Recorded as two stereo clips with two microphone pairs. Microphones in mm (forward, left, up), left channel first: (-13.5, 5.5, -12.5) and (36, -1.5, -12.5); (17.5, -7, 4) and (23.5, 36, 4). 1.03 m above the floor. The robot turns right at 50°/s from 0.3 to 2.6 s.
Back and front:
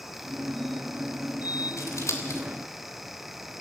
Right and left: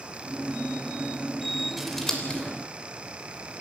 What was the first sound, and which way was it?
Scissors, 170° left.